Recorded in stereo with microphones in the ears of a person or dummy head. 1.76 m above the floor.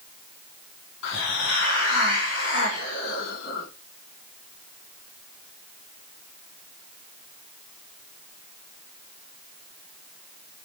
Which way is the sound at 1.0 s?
75° left (ahead or behind).